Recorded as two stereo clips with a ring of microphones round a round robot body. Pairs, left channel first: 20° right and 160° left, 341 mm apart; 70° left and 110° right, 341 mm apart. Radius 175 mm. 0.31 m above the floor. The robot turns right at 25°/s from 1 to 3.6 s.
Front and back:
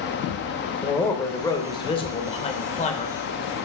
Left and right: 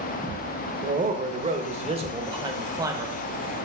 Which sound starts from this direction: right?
A man speaking, at 0.8 s.